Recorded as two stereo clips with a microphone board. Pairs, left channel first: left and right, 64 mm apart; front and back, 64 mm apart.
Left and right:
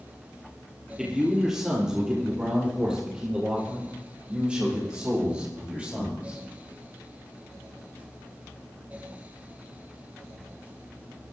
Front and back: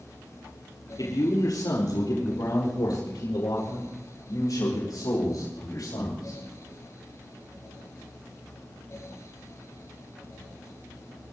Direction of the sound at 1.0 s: 5° right.